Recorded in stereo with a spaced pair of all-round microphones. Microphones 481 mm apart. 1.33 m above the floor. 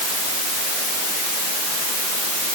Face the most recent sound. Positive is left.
No sound to turn to.